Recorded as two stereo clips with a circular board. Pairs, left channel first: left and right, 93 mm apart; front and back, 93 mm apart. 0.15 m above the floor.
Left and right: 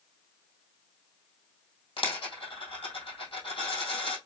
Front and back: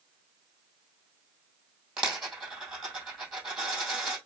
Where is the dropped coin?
95° left, 2.5 m.